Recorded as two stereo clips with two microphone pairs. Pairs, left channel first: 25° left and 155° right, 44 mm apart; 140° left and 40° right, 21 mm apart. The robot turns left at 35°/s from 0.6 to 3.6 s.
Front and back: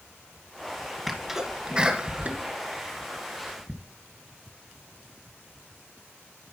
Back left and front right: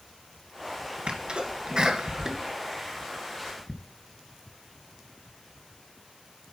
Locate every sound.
1.1 s a sneeze: 65° right, 2.5 m; by 3.7 s 155° right, 2.5 m